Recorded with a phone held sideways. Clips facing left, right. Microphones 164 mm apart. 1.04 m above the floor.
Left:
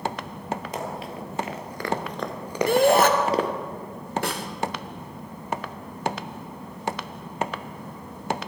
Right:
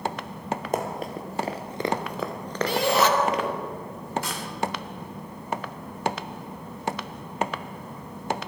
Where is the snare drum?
65° left (ahead or behind), 1.2 m.